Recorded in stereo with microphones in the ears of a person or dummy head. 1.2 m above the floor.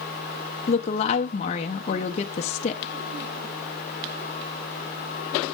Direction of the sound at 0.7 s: 35° left (ahead or behind).